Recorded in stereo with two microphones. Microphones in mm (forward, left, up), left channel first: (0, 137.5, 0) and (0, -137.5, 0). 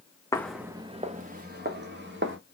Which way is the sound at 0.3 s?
10° left (ahead or behind).